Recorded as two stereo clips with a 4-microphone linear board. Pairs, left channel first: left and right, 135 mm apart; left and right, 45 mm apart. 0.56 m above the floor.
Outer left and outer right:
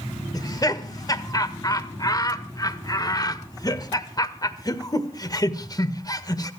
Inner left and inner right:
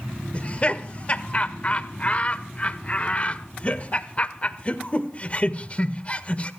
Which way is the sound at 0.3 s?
30° left (ahead or behind).